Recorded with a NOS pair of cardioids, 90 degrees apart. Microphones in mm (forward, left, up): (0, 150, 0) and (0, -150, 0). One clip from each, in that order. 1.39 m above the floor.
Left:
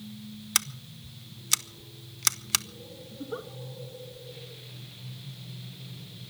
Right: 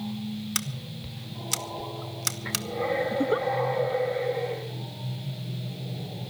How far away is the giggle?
About 0.9 m.